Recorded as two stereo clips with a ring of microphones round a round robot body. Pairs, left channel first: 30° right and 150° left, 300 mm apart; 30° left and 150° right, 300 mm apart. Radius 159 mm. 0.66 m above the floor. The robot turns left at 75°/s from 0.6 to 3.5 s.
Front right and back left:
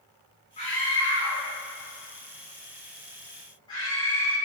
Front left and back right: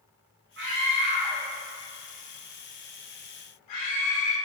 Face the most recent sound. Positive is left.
turn(degrees=45)